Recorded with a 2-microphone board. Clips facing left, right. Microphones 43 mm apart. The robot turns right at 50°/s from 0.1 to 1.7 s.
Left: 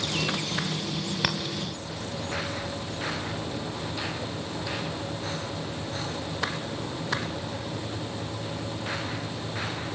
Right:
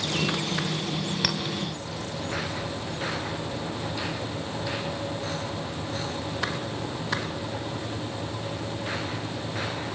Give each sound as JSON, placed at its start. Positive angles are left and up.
{"t": 1.2, "sound": "a clink", "side_deg": 15, "distance_m": 1.1}